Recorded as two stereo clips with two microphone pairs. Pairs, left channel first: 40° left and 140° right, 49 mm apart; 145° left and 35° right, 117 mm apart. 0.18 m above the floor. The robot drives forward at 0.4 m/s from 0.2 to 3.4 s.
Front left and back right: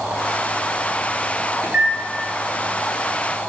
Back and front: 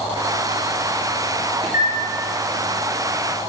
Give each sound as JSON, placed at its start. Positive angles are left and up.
{"t": 1.6, "sound": "a microwave", "azimuth_deg": -85, "distance_m": 1.9}